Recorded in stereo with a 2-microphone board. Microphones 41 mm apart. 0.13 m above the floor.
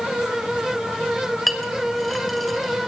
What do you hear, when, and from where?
1.5 s a clink: 5° left (ahead or behind), 2.5 m